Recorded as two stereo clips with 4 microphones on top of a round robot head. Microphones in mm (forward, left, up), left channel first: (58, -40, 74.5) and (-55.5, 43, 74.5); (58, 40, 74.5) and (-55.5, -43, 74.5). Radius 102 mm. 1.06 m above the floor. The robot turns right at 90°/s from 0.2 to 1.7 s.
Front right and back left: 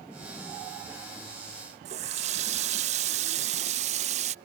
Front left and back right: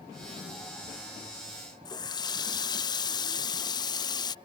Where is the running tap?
100° left.